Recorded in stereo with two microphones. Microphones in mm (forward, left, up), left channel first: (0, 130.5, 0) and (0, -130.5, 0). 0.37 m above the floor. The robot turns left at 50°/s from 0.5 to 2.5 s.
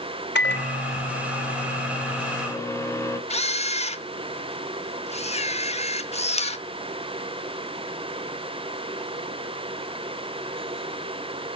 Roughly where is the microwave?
Behind left.